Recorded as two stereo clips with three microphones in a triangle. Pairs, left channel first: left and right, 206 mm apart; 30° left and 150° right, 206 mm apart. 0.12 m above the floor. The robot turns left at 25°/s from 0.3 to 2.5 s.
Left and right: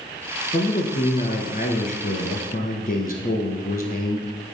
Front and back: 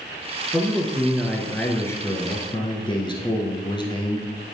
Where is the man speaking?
135° left, 1.4 m; by 4.5 s 85° left, 1.4 m.